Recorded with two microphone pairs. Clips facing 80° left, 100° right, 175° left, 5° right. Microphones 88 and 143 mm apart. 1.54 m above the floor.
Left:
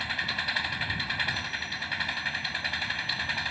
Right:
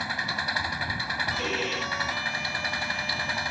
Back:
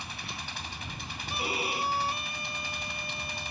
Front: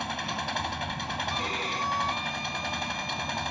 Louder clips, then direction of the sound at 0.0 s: Right 3 dB, front 9 dB; 30° right.